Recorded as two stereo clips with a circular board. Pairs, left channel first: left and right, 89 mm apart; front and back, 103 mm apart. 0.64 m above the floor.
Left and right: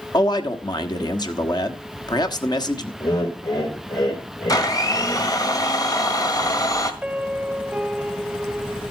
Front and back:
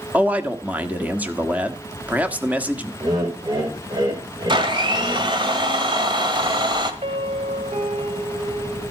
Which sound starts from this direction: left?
A man speaking, at 0.1 s.